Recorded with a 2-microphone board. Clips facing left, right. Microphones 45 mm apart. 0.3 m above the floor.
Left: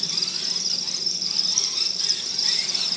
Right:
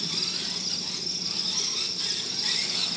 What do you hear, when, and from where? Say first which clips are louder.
0.0 s an insect: left 1 dB; 20° right (ahead or behind), 0.8 m